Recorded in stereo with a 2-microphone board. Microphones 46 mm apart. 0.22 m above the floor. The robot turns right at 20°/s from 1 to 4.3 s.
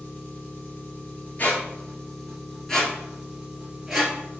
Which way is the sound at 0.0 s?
145° left.